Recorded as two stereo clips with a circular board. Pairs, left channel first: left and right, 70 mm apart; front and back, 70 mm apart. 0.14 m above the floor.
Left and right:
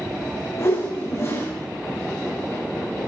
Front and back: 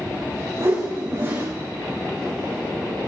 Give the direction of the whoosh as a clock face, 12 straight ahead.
8 o'clock.